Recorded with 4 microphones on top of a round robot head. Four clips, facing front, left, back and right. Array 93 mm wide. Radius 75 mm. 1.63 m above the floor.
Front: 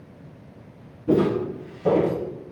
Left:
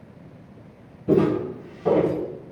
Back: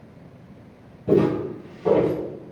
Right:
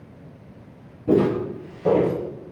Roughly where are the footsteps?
Behind right.